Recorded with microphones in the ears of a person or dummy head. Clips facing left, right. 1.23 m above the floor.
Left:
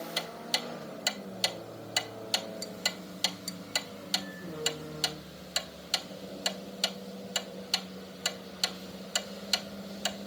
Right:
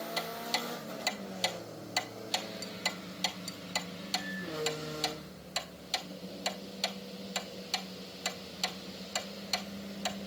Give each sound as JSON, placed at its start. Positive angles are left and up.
{"t": 0.2, "sound": "ticking", "side_deg": 5, "distance_m": 0.5}